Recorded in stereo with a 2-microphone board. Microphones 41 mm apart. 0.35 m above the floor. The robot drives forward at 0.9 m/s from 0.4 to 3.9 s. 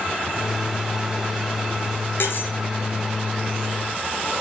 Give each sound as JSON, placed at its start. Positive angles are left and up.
{"t": 2.2, "sound": "cutlery clinking", "side_deg": 65, "distance_m": 4.0}